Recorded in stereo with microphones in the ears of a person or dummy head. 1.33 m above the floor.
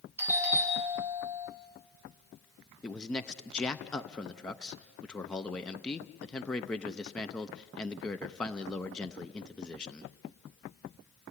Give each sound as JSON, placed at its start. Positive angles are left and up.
{"t": 0.2, "sound": "a doorbell", "side_deg": -10, "distance_m": 3.5}
{"t": 2.8, "sound": "a man speaking", "side_deg": 5, "distance_m": 0.5}